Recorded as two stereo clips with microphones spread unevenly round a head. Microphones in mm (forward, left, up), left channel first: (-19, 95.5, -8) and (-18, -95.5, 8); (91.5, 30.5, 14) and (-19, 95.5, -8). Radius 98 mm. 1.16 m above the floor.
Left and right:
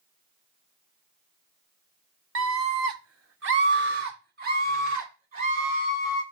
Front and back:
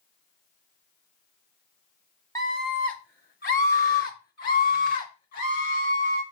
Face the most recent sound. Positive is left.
turn(degrees=-35)